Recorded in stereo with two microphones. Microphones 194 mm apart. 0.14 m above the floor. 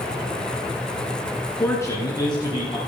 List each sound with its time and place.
1.6 s a man speaking: 10° left (ahead or behind), 1.4 m; by 2.8 s 25° left (ahead or behind), 1.9 m